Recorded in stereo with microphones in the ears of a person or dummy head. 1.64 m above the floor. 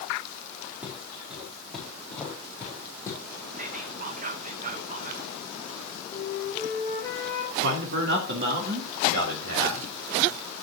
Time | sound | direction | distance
0.8 | footsteps | 10° right (ahead or behind) | 5 m
3.6 | whispering | 45° right (ahead or behind) | 0.6 m
6.1 | a flute | 20° left (ahead or behind) | 5 m
7.6 | a man speaking | 60° right (ahead or behind) | 2.5 m